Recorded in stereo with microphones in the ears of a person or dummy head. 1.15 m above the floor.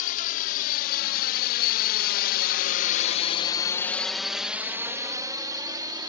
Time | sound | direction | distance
0.0 | a drone | 45° left (ahead or behind) | ?